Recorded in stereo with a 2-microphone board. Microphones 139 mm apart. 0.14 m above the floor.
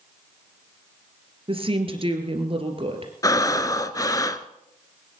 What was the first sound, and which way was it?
A woman speaking, 40° right (ahead or behind).